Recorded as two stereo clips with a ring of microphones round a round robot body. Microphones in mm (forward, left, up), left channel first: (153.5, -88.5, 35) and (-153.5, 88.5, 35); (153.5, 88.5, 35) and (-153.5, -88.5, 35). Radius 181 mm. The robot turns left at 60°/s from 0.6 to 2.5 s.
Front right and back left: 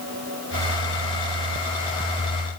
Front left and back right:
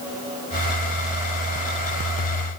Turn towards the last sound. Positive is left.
No sound to turn to.